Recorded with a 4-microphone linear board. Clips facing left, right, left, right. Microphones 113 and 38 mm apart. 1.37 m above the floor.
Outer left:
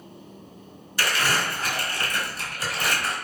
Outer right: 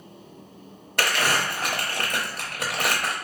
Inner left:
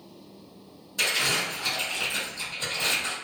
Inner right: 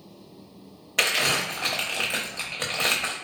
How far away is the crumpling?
About 0.8 m.